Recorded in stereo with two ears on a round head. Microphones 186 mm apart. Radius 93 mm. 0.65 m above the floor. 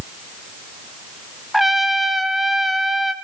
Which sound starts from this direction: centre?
A trumpet, at 1.5 s.